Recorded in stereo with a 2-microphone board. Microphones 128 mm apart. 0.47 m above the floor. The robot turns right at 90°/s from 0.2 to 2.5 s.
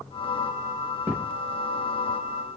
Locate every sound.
1.1 s a thud: 20° right (ahead or behind), 4.5 m; by 1.3 s 5° left (ahead or behind), 4.5 m